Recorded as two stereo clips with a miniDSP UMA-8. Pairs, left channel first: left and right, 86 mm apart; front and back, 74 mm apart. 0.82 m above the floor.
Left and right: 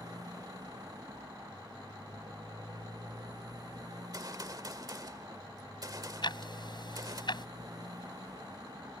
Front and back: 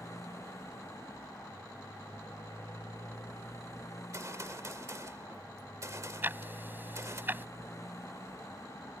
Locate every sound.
0.0 s a motorcycle: 50° right
4.1 s a gunshot: 135° right
6.2 s ticking: 115° left